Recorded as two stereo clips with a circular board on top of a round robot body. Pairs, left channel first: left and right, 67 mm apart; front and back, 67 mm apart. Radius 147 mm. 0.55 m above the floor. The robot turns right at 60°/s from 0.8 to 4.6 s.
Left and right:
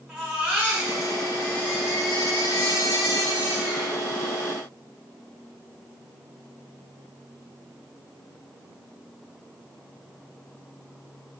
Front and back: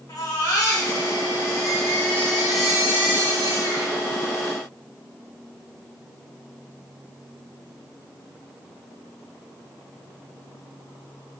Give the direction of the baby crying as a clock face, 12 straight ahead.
1 o'clock.